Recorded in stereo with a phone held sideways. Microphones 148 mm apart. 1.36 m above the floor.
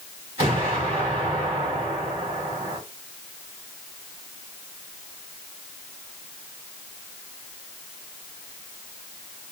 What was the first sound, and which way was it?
An explosion, 45° right (ahead or behind).